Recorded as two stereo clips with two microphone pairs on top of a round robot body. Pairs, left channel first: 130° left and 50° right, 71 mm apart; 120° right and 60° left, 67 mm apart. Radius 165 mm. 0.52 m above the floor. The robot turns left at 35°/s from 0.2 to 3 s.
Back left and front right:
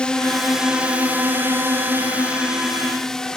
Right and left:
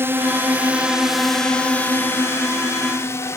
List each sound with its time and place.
0.0 s a drone: 75° left; by 3.4 s 150° right